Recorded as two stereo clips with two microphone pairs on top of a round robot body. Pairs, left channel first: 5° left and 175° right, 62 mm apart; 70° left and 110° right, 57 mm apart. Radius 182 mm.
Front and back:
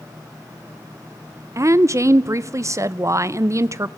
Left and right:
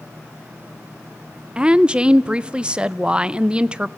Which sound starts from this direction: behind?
A woman speaking, at 1.6 s.